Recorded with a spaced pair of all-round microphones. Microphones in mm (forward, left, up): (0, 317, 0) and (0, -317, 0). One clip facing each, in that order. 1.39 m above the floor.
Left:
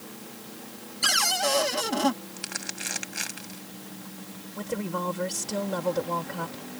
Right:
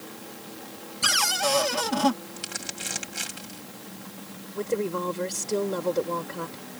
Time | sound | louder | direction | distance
1.0 | a cupboard door | right 1 dB | 35° right (ahead or behind) | ?
2.4 | crumpling | right 1 dB | 65° right (ahead or behind) | ?
4.5 | a woman speaking | right 5 dB | 20° left (ahead or behind) | ?